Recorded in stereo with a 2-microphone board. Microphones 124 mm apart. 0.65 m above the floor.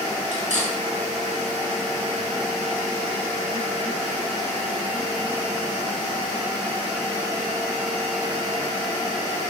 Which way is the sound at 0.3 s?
75° right (ahead or behind).